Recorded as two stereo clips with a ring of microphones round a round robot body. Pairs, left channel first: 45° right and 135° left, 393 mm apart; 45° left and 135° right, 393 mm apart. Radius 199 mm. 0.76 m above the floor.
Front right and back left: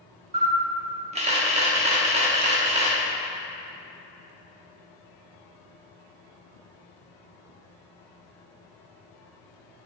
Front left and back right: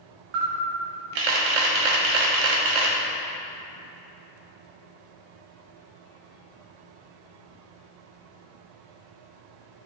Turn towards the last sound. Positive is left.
turn(degrees=-150)